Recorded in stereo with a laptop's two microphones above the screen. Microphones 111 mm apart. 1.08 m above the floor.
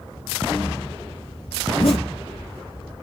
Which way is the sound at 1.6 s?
65° left (ahead or behind).